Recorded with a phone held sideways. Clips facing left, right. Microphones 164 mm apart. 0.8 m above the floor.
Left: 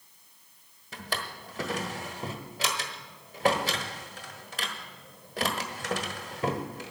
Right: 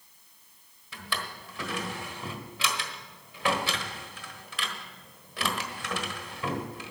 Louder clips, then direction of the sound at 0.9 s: Left 1 dB; 40° left (ahead or behind).